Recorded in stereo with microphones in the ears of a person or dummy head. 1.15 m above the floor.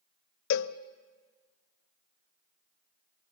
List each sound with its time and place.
0.5 s a cowbell: 65° left (ahead or behind), 0.6 m